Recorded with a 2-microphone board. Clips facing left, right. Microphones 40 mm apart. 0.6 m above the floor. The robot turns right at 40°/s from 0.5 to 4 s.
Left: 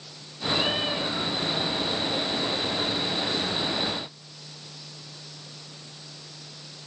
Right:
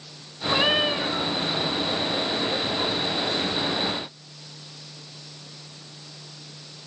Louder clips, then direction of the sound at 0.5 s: Right 5 dB; 45° right.